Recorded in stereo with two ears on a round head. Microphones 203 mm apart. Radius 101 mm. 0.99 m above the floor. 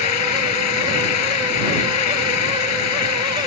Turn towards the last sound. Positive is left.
turn(degrees=80)